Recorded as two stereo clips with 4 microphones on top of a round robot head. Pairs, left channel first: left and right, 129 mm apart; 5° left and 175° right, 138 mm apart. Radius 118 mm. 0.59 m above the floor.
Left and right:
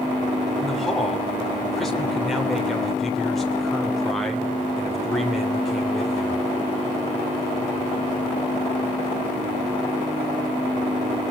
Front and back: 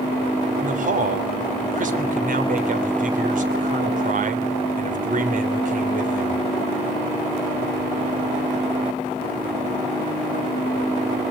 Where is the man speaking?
Straight behind, 3 m.